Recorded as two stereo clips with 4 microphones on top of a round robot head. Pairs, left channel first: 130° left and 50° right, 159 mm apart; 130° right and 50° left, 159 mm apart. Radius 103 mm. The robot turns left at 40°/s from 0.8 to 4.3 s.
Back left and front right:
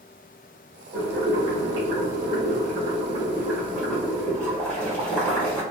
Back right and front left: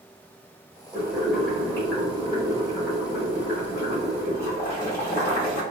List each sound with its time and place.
0.9 s boiling: 25° right, 1.1 m; by 5.6 s 160° right, 1.1 m